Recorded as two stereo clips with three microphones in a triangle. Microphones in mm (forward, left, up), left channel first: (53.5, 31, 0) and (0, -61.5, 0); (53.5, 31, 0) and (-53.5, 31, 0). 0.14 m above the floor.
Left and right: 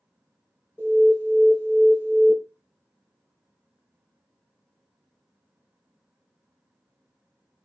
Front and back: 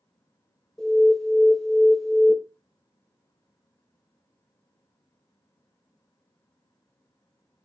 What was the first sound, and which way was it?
An alarm, 80° right.